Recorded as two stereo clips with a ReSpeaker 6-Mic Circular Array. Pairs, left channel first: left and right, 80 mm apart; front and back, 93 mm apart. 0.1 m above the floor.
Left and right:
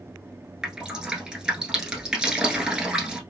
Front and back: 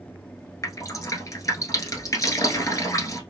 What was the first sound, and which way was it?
Dripping, 15° right.